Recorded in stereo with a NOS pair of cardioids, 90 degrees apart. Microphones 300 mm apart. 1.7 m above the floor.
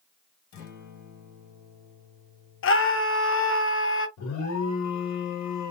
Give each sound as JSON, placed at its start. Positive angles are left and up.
{"t": 0.5, "sound": "a guitar", "azimuth_deg": 65, "distance_m": 1.5}
{"t": 2.6, "sound": "a scream", "azimuth_deg": 45, "distance_m": 0.8}
{"t": 4.2, "sound": "an alarm", "azimuth_deg": 70, "distance_m": 1.3}